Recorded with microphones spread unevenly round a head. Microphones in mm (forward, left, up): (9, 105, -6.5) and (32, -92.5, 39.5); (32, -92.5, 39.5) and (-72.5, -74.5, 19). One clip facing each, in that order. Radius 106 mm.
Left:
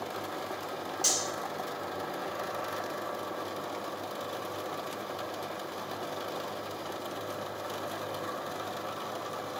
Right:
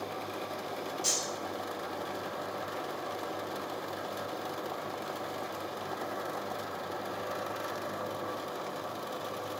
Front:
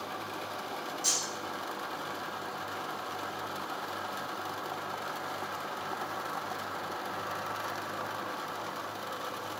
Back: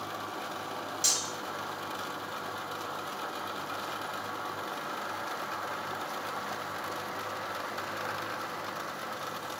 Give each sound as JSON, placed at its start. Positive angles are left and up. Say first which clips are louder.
{"t": 1.0, "sound": "cutlery clinking", "louder": "left 1 dB, even", "azimuth_deg": 165, "distance_m": 0.7}